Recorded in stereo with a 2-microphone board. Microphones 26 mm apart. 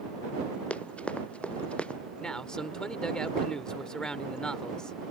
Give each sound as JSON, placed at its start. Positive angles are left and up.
{"t": 0.7, "sound": "running footsteps", "side_deg": 55}
{"t": 2.2, "sound": "a man speaking", "side_deg": 30}